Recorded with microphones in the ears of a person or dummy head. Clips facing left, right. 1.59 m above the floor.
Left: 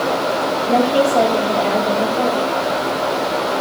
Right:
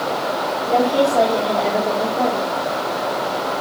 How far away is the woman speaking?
About 3.5 m.